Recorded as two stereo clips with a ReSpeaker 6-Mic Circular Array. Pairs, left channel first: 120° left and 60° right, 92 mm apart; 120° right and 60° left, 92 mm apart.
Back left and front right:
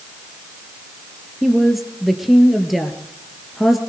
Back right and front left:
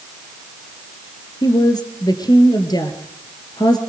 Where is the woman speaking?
150° right, 2.5 m.